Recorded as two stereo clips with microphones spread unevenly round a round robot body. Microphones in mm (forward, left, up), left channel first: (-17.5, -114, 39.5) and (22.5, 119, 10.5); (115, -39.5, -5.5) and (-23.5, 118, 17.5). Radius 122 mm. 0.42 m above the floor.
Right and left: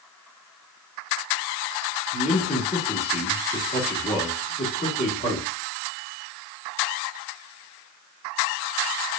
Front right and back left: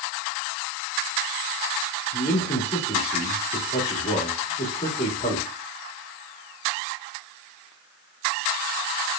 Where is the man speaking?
50° right, 1.1 m.